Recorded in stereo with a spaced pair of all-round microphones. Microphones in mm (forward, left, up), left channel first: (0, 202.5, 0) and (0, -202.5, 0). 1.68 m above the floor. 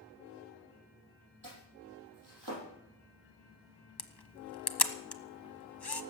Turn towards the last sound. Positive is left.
turn(degrees=70)  # may be behind; listen again after turning